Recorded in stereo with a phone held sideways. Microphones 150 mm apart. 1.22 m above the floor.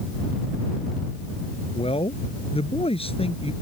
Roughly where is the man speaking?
Left.